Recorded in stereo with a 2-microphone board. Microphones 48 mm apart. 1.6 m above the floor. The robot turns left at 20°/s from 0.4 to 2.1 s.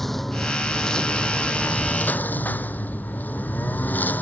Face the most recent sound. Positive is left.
turn(degrees=140)